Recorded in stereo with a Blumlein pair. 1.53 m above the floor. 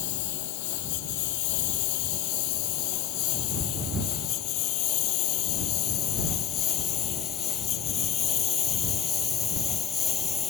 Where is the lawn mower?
50° left; by 10.5 s 20° left.